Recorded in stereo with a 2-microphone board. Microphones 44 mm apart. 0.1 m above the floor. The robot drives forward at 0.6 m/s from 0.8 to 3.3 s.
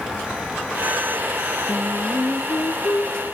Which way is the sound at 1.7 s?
65° left (ahead or behind).